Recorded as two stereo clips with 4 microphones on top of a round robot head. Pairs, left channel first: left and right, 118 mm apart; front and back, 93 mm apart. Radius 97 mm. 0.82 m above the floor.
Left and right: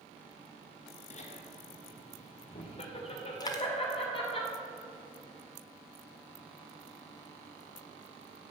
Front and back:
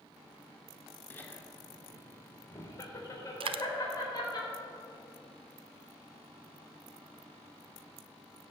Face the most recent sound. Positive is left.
turn(degrees=155)